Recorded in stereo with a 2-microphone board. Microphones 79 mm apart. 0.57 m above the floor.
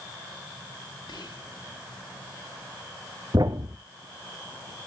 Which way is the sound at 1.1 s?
75° left (ahead or behind).